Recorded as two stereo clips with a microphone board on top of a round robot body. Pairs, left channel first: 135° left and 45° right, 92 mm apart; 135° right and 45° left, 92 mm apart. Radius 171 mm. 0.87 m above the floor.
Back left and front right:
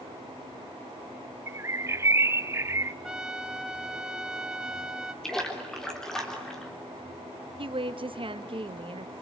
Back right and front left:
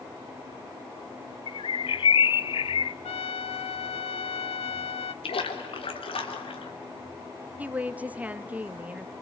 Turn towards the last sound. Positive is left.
turn(degrees=-30)